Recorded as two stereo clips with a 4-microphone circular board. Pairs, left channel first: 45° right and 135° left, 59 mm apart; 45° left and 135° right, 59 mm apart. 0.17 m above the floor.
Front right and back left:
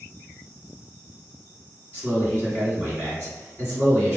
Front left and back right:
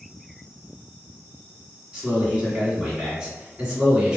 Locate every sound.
1.9 s a man speaking: 160° left, 1.9 m